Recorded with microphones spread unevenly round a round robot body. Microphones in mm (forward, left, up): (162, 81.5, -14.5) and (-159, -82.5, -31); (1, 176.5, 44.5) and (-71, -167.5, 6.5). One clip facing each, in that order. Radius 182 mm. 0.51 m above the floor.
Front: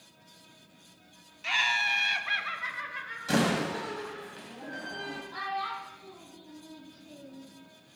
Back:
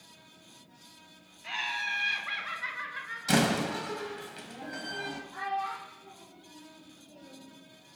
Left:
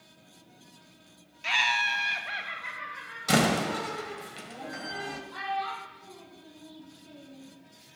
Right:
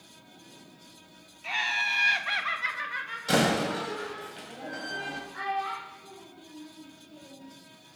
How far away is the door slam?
About 2.5 m.